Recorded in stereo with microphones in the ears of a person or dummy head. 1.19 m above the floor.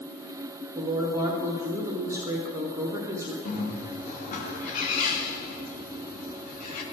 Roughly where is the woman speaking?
Right.